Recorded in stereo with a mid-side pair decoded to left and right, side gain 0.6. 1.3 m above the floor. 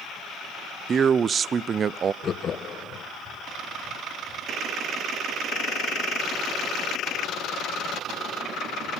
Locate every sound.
0.9 s a man speaking: 40° right, 0.5 m
2.2 s laughter: 35° left, 1.5 m